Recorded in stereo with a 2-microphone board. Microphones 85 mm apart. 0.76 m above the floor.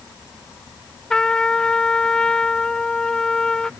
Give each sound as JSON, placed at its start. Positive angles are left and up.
{"t": 1.1, "sound": "a trumpet", "side_deg": 10}